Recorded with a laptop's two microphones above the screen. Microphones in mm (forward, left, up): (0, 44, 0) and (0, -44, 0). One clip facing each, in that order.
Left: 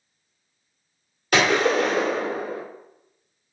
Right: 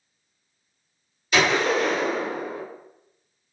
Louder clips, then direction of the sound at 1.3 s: Left 2 dB; 55° left (ahead or behind).